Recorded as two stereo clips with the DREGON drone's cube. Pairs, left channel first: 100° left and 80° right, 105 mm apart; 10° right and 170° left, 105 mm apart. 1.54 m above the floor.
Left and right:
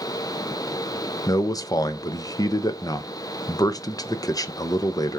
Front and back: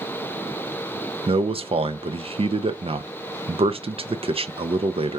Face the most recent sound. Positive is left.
turn(degrees=150)